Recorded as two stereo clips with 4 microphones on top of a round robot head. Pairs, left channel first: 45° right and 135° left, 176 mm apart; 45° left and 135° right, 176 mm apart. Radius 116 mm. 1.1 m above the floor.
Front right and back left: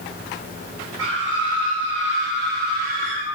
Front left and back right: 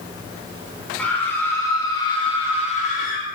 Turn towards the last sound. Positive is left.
turn(degrees=85)